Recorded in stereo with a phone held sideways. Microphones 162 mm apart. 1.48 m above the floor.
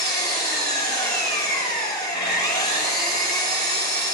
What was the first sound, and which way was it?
An engine running, 75° left (ahead or behind).